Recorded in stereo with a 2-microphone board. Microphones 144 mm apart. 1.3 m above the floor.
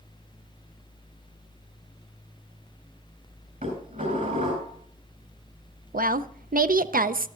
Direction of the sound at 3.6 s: 70° right (ahead or behind).